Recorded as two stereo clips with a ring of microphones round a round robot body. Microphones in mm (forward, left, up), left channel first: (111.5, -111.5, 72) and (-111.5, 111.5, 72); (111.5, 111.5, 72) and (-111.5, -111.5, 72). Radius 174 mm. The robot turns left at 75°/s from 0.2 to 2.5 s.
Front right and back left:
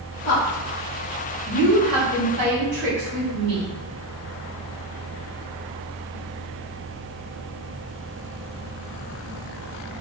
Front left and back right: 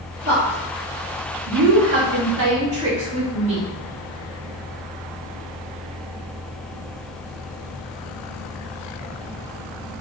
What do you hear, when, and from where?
0.2 s a woman speaking: 45° right, 1.5 m; by 3.7 s 145° left, 1.5 m